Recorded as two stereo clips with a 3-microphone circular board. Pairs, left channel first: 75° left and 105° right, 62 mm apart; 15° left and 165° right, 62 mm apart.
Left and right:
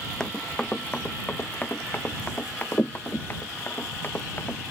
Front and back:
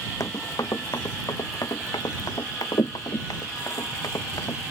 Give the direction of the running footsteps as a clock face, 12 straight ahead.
12 o'clock.